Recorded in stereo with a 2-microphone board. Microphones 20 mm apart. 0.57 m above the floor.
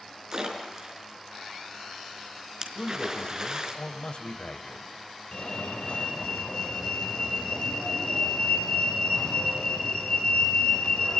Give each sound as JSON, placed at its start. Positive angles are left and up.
{"t": 0.3, "sound": "a splash", "side_deg": -30, "distance_m": 4.5}
{"t": 2.8, "sound": "a man speaking", "side_deg": 60, "distance_m": 3.5}
{"t": 5.3, "sound": "a fire alarm", "side_deg": 65, "distance_m": 4.5}